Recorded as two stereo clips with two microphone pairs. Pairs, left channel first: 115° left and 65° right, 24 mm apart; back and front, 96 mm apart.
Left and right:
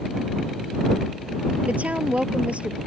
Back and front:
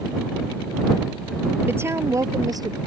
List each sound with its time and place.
1.7 s a woman speaking: 60° right; by 2.8 s 35° right